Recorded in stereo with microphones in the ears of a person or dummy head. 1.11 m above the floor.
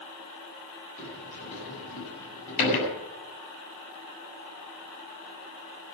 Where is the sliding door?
40° left (ahead or behind), 8 m.